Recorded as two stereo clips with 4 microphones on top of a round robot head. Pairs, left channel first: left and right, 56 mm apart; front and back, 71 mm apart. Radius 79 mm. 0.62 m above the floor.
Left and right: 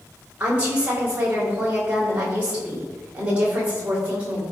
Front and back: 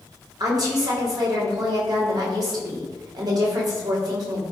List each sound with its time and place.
0.4 s a woman speaking: 155° right, 2.5 m